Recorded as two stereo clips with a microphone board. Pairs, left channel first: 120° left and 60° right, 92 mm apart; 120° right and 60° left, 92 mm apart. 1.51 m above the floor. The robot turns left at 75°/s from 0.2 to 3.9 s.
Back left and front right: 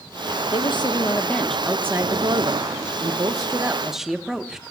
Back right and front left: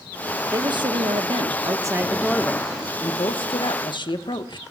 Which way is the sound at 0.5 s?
110° left.